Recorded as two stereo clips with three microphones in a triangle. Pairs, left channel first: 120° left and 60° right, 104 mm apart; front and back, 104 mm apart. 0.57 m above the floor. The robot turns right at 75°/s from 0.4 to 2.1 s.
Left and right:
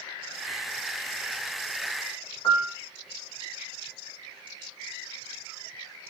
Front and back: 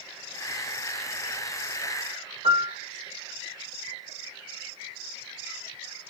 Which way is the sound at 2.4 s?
170° left.